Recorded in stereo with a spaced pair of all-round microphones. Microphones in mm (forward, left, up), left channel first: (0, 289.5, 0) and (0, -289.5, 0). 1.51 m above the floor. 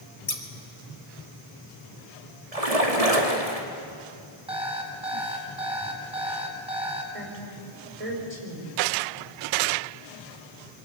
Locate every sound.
0.3 s scissors: 80° left, 3 m
2.5 s a splash: 85° right, 3 m
4.5 s an alarm clock: 10° right (ahead or behind), 5.5 m
7.1 s a woman speaking: 75° right (ahead or behind), 6.5 m